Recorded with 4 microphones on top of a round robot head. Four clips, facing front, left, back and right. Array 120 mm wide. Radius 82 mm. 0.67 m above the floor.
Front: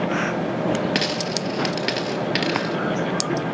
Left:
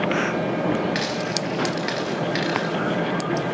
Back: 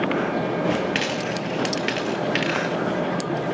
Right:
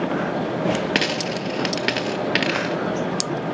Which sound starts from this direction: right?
A dropped coin, at 0.9 s.